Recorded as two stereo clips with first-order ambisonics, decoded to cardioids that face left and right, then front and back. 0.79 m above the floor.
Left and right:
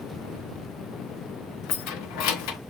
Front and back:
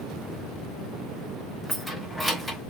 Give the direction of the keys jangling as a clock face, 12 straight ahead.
9 o'clock.